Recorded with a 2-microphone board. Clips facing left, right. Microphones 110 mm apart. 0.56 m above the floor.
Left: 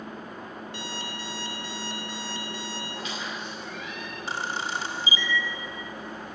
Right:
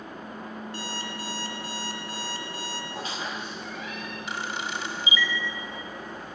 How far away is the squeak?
About 4.5 m.